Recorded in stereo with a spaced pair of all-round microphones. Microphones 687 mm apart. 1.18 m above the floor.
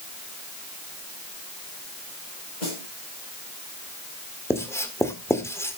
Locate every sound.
2.6 s a snare drum: 75° left (ahead or behind), 6 m
4.5 s writing: 5° left (ahead or behind), 1.8 m